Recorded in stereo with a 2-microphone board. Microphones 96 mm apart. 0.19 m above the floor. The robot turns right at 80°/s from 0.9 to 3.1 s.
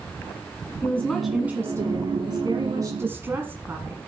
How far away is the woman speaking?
About 1.4 m.